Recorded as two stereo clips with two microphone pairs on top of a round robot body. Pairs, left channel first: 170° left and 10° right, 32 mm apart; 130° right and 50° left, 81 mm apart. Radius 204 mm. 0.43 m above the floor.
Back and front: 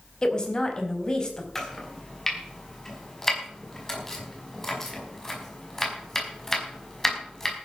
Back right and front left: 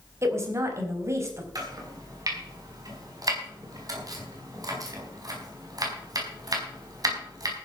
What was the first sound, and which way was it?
A woman speaking, 105° left.